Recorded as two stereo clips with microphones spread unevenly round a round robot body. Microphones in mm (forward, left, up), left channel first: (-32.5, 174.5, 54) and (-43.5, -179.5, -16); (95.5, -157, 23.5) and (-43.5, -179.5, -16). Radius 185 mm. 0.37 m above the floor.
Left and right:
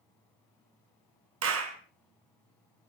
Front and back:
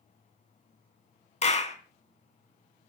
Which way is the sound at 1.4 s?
40° right.